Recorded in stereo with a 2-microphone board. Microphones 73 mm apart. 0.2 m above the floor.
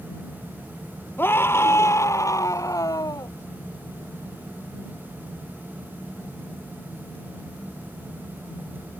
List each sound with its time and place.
1.2 s a scream: 30° left (ahead or behind); by 3.3 s 55° left (ahead or behind)